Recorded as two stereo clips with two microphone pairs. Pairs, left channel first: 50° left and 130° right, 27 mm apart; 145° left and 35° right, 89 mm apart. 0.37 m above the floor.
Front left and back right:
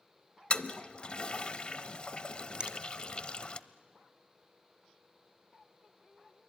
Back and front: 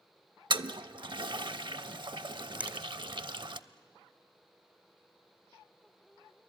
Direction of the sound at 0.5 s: 10° right.